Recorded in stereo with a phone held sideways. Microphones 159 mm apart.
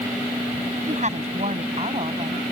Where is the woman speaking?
50° right (ahead or behind); by 2.4 s 40° right (ahead or behind).